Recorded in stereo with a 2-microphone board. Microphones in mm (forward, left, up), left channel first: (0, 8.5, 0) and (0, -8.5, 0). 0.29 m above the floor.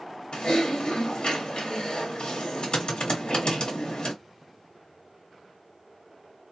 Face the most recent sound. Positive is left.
turn(degrees=55)  # may be behind; listen again after turning